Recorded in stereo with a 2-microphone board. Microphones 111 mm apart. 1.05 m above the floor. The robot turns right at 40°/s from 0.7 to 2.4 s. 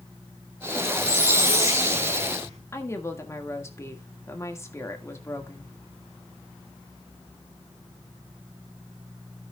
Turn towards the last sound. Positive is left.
turn(degrees=25)  # may be behind; listen again after turning